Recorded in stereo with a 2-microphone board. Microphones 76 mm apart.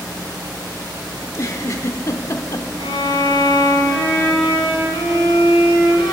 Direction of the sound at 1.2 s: 45° left (ahead or behind).